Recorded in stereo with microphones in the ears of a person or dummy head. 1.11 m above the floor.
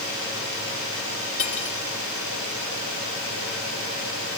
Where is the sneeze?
No sneeze in this recording.